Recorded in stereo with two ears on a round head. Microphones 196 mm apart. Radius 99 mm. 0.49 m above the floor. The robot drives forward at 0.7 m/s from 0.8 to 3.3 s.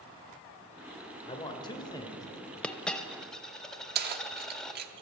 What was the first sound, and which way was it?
A man speaking, 25° left (ahead or behind).